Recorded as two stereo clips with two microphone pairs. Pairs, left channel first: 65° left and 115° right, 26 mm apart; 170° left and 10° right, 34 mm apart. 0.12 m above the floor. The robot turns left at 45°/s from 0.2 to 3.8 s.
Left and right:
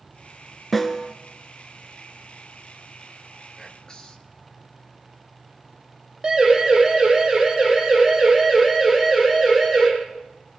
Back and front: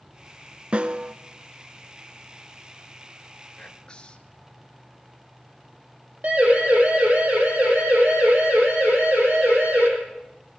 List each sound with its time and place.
0.7 s a snare drum: 15° right, 1.5 m; by 1.1 s 35° right, 1.5 m
3.6 s whispering: 120° left, 2 m; by 4.4 s 110° left, 2 m
6.2 s a siren: 50° right, 6.5 m; by 9.9 s 25° right, 7 m